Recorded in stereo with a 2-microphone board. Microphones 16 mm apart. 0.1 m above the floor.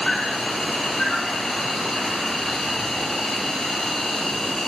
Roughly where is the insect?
Left.